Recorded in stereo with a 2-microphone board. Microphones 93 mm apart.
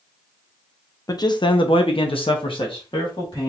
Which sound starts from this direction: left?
A man speaking, at 1.1 s.